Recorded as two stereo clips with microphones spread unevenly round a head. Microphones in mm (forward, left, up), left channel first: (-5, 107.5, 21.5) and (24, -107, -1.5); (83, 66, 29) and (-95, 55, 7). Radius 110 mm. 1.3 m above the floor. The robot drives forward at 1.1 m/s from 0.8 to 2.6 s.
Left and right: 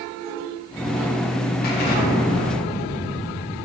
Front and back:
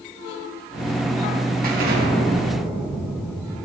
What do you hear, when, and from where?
1.6 s an explosion: 150° left, 2 m; by 3.5 s 160° left, 3 m